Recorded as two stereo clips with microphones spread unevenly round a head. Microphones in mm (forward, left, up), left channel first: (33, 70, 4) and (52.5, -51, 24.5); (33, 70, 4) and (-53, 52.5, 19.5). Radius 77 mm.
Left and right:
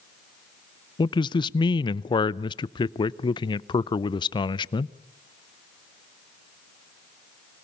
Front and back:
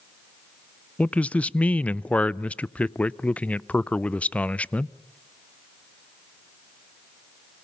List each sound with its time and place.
1.0 s a man speaking: 75° left, 0.5 m